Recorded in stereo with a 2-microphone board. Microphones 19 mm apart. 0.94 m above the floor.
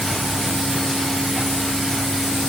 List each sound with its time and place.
Only background noise.